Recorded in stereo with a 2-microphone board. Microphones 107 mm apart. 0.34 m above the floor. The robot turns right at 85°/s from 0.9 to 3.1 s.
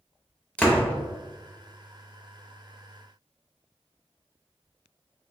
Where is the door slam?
10° left (ahead or behind), 0.6 m.